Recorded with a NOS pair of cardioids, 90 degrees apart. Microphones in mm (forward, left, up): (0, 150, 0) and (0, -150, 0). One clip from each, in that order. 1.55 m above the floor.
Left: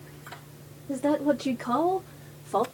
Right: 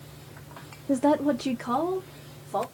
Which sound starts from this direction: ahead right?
A woman speaking, at 0.9 s.